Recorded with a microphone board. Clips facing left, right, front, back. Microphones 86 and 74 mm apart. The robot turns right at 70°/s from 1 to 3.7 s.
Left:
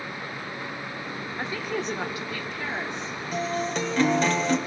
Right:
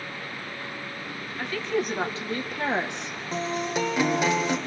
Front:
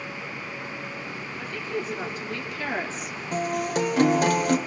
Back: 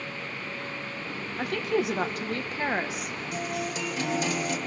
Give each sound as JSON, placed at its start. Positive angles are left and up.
{"t": 1.4, "sound": "a woman speaking", "azimuth_deg": 155, "distance_m": 1.7}
{"t": 3.3, "sound": "a guitar", "azimuth_deg": -40, "distance_m": 1.9}